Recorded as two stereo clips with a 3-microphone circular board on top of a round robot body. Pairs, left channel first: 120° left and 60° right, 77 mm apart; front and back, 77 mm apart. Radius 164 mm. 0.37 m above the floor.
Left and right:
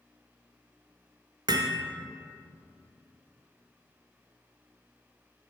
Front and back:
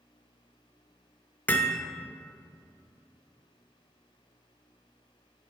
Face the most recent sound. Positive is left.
turn(degrees=-70)